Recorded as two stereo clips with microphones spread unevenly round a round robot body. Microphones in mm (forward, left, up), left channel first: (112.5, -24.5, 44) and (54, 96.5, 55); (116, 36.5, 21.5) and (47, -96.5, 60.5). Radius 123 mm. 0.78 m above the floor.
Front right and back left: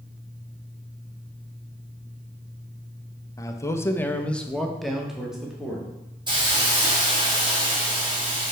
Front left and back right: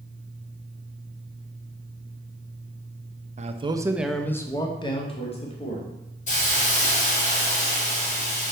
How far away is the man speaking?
About 0.7 m.